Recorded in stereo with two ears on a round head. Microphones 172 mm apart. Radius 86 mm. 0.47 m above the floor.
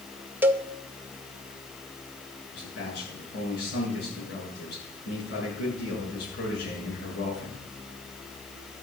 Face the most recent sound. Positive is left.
turn(degrees=60)  # may be behind; listen again after turning